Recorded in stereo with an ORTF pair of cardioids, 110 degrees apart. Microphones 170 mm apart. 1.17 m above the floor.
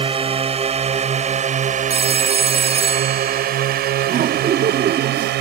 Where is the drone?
35° right; by 5.4 s 75° right.